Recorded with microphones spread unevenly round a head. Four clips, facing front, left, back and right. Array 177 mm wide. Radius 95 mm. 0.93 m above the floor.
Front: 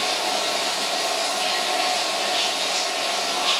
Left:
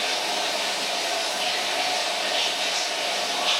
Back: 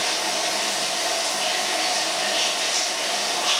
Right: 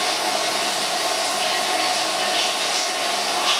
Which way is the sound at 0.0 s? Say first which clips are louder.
Right 5 dB, front 2 dB; 80° right.